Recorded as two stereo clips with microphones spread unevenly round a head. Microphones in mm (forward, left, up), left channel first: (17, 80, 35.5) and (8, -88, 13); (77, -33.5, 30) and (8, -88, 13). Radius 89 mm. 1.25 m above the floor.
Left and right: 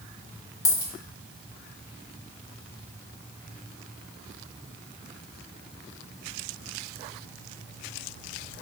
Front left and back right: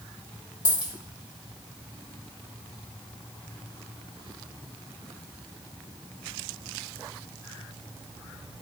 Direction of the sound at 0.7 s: 75° left.